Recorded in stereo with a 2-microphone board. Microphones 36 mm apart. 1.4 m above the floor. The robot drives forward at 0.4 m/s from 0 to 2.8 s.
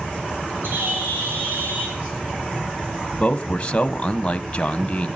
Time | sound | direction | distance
0.6 | a bird | 85° right | 4 m
3.2 | a man speaking | 25° left (ahead or behind) | 0.9 m